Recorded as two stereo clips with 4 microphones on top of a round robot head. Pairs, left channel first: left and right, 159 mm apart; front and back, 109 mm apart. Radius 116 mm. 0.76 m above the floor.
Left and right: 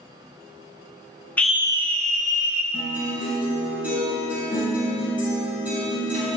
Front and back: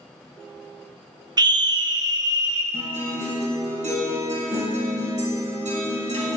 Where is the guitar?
175° right, 4 m.